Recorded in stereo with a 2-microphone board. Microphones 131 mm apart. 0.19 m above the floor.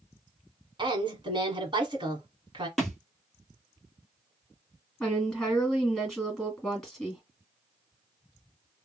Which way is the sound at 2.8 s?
Centre (ahead or behind).